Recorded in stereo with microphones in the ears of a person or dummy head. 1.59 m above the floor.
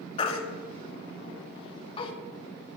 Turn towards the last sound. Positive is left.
turn(degrees=30)  # may be behind; listen again after turning